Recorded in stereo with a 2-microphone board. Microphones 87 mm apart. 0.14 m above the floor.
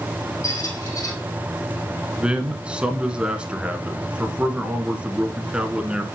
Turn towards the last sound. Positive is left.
turn(degrees=-10)  # may be behind; listen again after turning